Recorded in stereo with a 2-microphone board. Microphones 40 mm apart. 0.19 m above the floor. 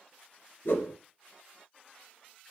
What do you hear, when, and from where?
0.7 s a whoosh: 65° left (ahead or behind), 2.5 m